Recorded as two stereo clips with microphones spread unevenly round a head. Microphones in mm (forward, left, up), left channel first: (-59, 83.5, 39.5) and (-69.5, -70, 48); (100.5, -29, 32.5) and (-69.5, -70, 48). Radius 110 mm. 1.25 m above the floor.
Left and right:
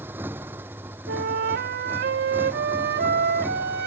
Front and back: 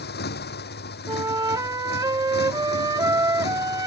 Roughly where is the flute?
Right.